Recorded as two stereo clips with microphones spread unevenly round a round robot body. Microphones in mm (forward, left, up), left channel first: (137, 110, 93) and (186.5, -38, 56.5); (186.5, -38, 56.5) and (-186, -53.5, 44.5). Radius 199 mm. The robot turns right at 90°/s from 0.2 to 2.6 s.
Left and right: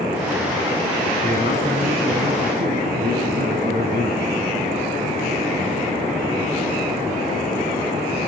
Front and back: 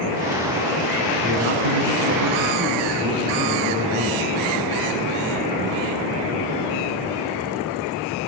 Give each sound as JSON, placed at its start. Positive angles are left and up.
{"t": 1.2, "sound": "a man speaking", "azimuth_deg": 135, "distance_m": 5.0}